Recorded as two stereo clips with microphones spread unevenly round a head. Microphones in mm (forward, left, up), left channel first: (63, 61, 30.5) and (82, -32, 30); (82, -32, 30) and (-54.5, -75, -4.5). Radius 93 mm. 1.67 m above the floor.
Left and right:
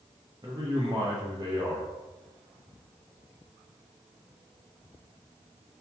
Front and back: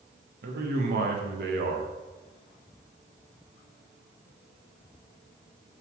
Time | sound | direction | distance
0.4 | a man speaking | 150° right | 1.6 m